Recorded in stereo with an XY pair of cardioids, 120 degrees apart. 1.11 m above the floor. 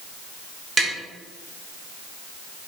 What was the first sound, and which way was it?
Tapping, 25° right.